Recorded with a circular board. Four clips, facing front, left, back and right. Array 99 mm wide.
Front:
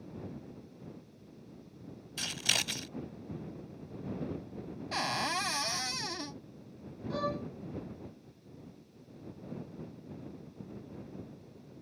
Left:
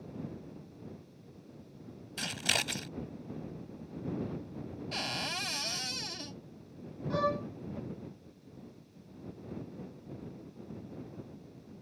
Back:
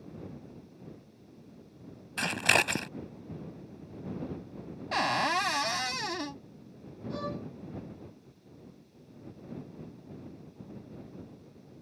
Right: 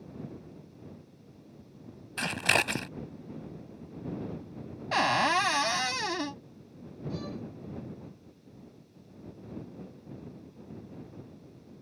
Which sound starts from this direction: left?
A violin, at 7.1 s.